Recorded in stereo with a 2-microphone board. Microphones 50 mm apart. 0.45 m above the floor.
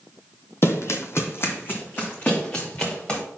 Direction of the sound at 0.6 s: 55° left (ahead or behind).